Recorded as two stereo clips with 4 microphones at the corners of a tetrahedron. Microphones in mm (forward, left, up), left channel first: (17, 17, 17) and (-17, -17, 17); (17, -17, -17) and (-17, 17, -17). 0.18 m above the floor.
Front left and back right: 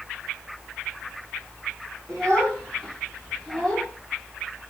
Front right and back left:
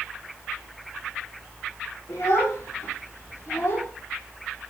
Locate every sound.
2.1 s a child speaking: 35° right, 7.5 m